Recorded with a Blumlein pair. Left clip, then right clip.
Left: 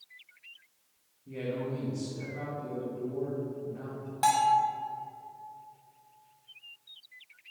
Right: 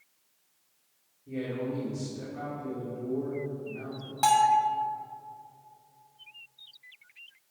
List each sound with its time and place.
1.3 s a man speaking: 5° left, 2 m
4.2 s a bell: 5° right, 1.3 m